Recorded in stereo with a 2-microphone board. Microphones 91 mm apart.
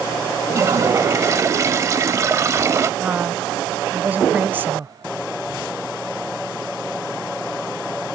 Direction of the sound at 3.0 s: 20° right (ahead or behind).